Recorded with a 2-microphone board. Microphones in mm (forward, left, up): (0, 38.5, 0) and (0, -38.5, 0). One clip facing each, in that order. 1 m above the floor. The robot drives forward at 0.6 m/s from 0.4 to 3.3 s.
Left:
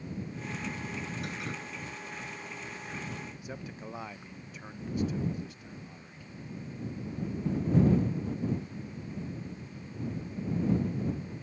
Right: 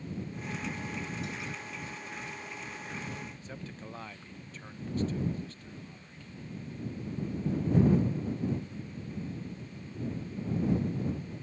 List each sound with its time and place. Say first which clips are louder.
1.2 s dripping: left 1 dB; 55° left (ahead or behind)
3.4 s a man speaking: left 2 dB; 15° left (ahead or behind)